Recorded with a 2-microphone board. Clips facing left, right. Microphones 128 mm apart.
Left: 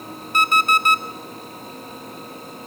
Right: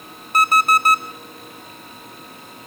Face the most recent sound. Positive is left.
turn(degrees=-35)  # may be behind; listen again after turning